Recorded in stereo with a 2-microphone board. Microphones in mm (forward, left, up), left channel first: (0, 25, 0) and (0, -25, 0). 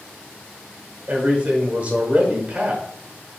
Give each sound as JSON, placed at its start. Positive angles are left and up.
{"t": 1.1, "sound": "a man speaking", "side_deg": -30, "distance_m": 1.0}